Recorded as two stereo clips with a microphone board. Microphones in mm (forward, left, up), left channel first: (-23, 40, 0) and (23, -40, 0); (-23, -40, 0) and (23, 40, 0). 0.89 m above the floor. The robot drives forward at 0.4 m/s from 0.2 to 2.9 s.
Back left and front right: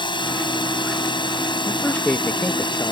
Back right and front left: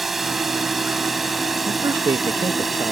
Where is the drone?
150° left.